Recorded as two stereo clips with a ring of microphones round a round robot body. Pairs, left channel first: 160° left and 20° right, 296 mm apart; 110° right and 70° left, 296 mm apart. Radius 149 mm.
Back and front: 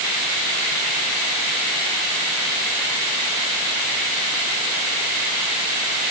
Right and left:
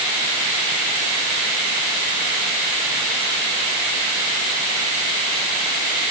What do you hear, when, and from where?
Only background noise.